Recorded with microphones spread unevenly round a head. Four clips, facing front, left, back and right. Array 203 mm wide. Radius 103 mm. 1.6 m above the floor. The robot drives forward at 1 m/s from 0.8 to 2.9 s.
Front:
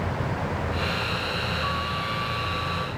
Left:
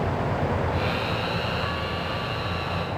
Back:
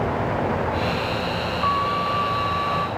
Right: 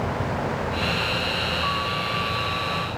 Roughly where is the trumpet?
Behind.